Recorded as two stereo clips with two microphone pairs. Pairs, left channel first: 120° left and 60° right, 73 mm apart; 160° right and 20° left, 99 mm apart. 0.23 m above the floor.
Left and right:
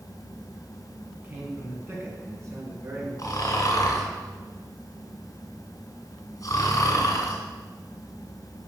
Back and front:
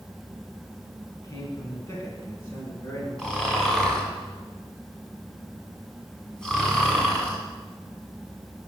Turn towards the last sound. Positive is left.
turn(degrees=120)